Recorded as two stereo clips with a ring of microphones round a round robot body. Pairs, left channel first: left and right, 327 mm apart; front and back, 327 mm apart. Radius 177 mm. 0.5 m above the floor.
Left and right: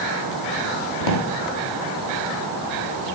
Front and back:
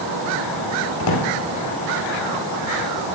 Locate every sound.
1.0 s a drawer: 55° left, 2.5 m